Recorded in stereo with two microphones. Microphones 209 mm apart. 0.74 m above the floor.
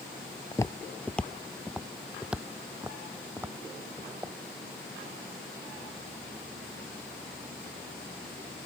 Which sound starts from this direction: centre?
Footsteps, at 0.5 s.